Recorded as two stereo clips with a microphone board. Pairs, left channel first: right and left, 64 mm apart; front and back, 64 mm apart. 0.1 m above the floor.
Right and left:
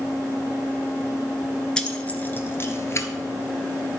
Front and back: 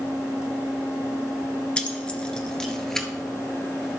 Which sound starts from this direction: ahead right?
Keys jangling, at 1.8 s.